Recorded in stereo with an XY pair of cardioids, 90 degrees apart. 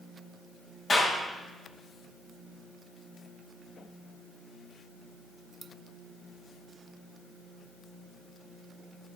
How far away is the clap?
About 6 m.